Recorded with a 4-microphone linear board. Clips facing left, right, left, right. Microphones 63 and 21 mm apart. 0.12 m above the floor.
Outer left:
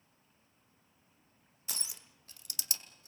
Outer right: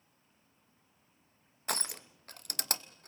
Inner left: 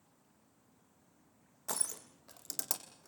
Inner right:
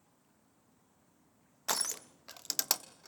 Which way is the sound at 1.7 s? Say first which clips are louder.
Outer right 12 dB, inner right 6 dB; 55° right (ahead or behind).